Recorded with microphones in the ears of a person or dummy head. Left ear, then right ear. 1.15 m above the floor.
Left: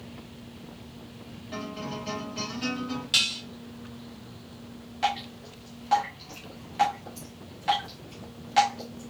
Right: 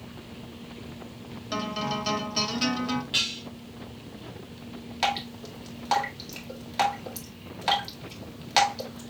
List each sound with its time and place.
1.5 s a guitar: 45° right (ahead or behind), 1.2 m
3.1 s dishes clattering: 30° left (ahead or behind), 0.9 m
5.0 s dripping: 35° right (ahead or behind), 1.8 m